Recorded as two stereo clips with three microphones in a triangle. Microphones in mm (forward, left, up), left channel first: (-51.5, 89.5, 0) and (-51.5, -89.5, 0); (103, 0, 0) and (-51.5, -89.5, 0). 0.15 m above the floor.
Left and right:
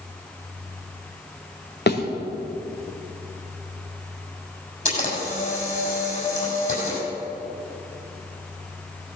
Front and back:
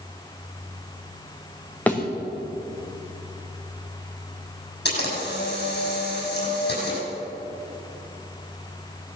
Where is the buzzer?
I don't hear a buzzer.